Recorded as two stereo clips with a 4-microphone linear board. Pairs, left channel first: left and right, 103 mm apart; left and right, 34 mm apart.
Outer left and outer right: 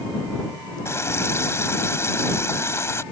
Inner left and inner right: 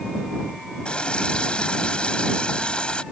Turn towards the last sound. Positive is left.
turn(degrees=25)  # may be behind; listen again after turning